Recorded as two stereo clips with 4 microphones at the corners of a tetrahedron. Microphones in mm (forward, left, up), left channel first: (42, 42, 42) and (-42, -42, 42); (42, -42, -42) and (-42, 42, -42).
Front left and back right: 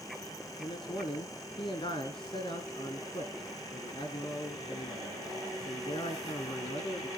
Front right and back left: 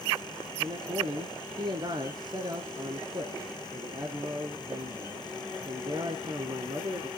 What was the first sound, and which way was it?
A man speaking, 85° left.